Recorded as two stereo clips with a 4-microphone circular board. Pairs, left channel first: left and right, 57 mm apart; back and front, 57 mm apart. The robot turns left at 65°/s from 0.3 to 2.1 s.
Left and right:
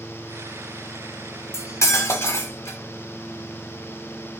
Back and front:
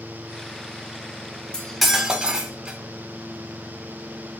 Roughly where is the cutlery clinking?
Left.